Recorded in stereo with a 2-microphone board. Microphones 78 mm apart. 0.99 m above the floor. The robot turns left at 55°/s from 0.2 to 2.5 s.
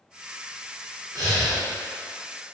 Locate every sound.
1.1 s breathing: 50° right (ahead or behind), 0.8 m; by 1.6 s 25° right (ahead or behind), 0.8 m